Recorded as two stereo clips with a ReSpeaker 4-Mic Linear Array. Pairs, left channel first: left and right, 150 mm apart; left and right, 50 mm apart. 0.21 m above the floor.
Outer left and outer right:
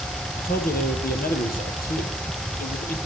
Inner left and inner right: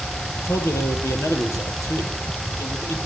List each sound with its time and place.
0.4 s a man speaking: 75° left (ahead or behind), 6 m